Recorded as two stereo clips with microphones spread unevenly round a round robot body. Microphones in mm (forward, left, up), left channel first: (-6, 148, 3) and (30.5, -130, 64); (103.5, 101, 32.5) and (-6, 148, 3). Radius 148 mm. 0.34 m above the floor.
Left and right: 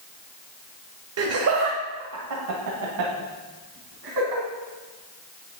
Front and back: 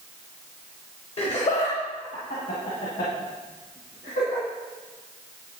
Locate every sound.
1.2 s laughter: 60° right, 1.2 m; by 4.4 s 65° right, 3 m